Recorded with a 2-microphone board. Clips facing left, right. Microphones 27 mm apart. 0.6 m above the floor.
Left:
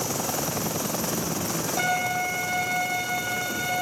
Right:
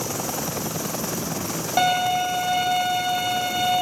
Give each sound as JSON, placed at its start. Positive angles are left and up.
{"t": 1.8, "sound": "a violin", "side_deg": -50, "distance_m": 4.5}